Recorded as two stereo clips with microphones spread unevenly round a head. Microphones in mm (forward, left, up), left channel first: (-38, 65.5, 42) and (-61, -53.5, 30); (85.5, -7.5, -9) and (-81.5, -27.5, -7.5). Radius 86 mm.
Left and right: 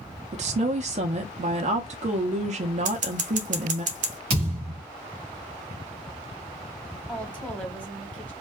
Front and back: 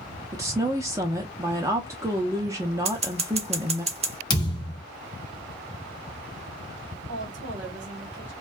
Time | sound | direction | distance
0.3 | a woman speaking | 100° right | 0.5 m
2.9 | scissors | 120° right | 0.7 m
4.3 | a thud | 50° right | 1.0 m
7.1 | a woman speaking | 160° left | 1.4 m